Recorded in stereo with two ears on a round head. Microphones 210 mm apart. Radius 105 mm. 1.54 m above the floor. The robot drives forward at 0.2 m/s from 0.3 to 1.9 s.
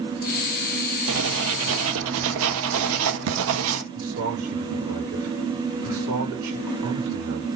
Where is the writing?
65° right (ahead or behind), 1.4 m.